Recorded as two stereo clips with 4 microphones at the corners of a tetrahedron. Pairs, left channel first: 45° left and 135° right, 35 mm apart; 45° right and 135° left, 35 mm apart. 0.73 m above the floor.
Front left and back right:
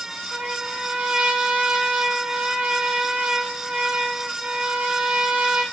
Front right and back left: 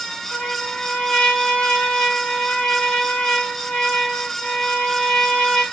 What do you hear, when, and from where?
0.3 s a trumpet: 90° right, 0.8 m